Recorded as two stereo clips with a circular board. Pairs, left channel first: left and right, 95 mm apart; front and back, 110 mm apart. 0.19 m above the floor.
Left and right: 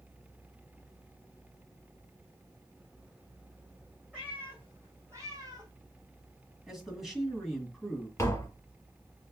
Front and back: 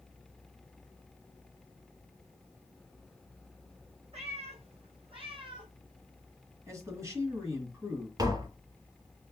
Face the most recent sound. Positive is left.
turn(degrees=140)